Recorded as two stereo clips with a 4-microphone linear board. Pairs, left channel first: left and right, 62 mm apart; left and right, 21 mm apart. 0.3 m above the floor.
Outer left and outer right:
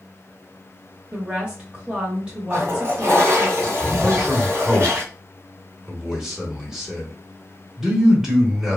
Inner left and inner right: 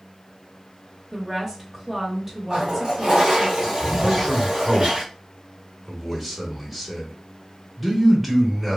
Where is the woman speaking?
15° right (ahead or behind), 0.9 m.